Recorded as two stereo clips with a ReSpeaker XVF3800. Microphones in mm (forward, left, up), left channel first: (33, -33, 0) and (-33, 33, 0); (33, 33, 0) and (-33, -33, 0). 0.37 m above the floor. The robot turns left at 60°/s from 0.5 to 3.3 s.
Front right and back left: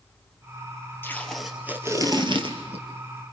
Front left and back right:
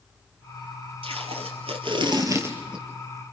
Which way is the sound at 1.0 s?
115° right.